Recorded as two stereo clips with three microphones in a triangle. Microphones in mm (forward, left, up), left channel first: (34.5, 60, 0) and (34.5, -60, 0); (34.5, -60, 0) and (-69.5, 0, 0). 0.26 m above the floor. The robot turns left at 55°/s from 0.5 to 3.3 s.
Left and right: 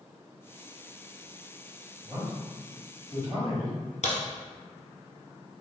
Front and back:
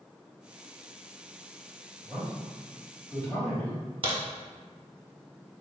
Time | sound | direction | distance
2.0 | a man speaking | 25° right | 1.7 m
4.0 | a crack | 110° left | 1.2 m